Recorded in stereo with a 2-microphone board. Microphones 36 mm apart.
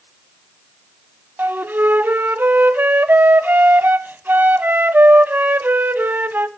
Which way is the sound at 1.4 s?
65° right (ahead or behind).